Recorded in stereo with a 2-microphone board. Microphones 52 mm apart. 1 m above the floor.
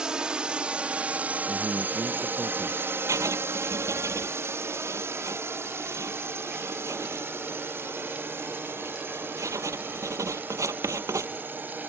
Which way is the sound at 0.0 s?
15° right (ahead or behind).